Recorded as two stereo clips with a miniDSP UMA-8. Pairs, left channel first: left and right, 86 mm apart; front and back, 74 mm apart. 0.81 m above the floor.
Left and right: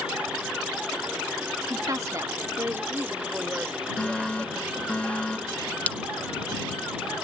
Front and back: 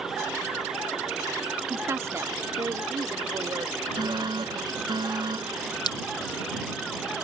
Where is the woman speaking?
125° right; by 5.0 s 170° right.